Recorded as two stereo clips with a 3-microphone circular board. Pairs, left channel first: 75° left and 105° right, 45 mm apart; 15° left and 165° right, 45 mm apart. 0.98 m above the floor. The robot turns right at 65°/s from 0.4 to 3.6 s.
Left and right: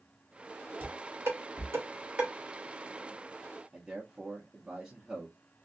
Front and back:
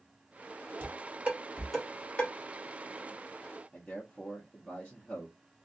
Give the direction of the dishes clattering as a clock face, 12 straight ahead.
5 o'clock.